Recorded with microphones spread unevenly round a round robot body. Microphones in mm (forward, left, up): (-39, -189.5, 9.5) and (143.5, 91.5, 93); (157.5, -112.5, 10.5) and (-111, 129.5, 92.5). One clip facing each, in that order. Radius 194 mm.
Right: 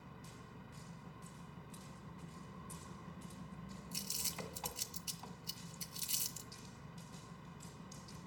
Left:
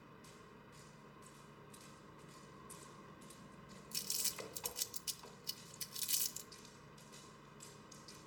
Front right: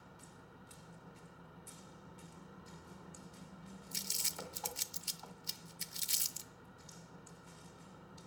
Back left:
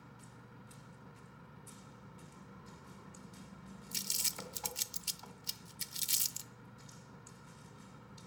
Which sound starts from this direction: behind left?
Crumpling, at 3.9 s.